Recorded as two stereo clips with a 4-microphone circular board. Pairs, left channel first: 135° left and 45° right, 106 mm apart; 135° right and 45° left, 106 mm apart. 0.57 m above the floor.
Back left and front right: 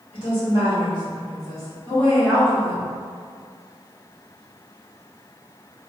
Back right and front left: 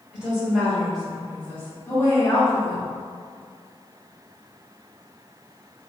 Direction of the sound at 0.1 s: 125° left.